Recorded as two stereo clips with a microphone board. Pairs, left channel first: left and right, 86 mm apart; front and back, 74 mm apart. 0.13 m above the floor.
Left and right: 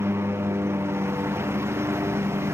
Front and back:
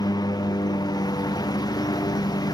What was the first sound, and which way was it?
A lawn mower, 30° right.